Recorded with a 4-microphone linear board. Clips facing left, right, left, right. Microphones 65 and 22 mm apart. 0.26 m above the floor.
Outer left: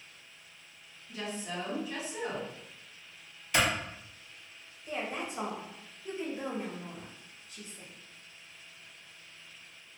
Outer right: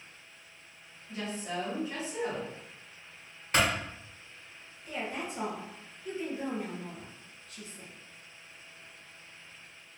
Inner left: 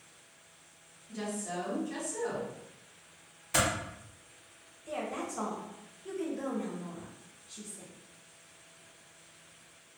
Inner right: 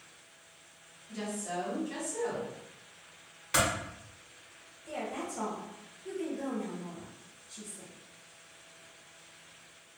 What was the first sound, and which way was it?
A woman speaking, 40° right (ahead or behind).